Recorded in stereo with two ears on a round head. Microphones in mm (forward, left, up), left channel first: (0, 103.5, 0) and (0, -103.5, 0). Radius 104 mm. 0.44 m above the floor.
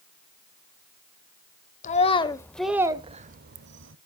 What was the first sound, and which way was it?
A child speaking, 35° left (ahead or behind).